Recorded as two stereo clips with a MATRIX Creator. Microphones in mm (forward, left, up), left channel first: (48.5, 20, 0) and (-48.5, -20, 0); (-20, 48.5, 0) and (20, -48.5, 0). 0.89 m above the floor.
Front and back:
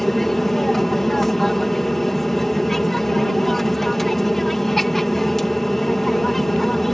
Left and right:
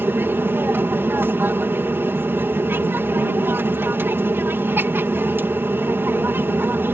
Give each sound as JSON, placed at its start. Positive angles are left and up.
{"t": 0.0, "sound": "an aircraft", "azimuth_deg": -60}